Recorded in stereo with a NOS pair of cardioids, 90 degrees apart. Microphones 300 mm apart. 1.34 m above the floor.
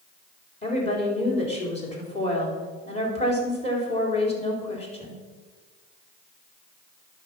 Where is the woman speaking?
20° left, 4 m.